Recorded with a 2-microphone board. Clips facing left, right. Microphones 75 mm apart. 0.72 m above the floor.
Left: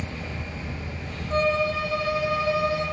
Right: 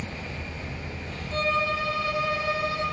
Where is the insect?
20° left (ahead or behind), 1.4 m.